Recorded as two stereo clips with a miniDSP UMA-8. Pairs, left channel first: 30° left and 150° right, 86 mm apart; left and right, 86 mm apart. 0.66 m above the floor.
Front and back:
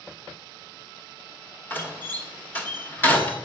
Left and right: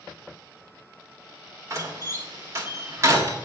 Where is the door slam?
35° right, 1.4 m.